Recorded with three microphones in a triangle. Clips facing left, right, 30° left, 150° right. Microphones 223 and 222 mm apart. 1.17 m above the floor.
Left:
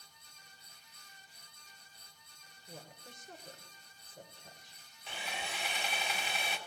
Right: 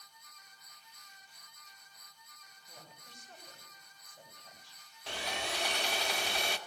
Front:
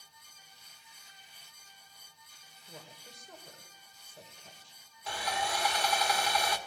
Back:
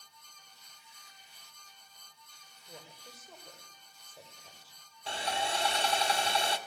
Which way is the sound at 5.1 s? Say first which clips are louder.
Right 5 dB, back 1 dB; 85° right.